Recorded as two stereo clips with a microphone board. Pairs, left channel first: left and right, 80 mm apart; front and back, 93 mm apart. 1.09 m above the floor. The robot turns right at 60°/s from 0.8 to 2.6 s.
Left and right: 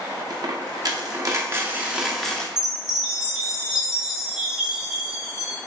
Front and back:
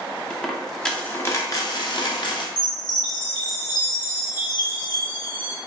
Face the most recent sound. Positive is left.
turn(degrees=-10)